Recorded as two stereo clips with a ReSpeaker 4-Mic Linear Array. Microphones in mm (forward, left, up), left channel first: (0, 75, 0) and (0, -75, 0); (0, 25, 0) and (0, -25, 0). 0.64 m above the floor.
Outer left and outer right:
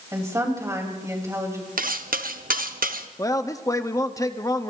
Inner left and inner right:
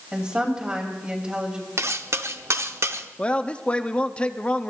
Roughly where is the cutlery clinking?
Right.